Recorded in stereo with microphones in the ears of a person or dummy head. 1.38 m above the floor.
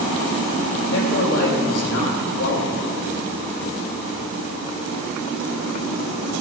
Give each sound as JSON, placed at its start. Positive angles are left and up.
{"t": 0.9, "sound": "a man speaking", "side_deg": 70, "distance_m": 4.0}